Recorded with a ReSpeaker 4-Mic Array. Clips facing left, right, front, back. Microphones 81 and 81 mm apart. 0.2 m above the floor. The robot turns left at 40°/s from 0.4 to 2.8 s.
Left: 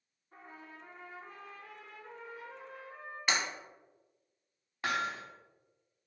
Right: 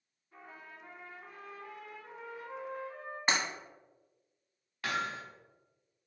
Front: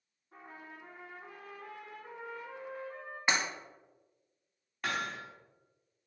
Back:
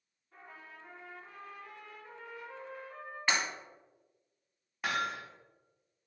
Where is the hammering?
110° left, 0.8 m.